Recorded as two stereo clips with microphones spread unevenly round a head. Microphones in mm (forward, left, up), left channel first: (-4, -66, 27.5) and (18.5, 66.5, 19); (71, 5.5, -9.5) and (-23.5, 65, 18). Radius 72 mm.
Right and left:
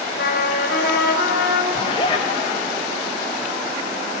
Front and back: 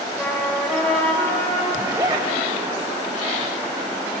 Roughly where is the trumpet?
Behind right.